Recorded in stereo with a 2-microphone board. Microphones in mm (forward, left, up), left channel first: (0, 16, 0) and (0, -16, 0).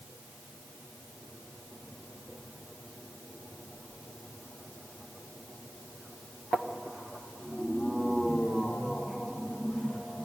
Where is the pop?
I don't hear a pop.